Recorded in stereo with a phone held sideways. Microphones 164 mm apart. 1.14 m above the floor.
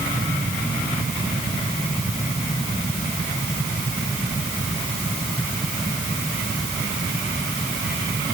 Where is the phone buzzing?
No phone buzzing in this recording.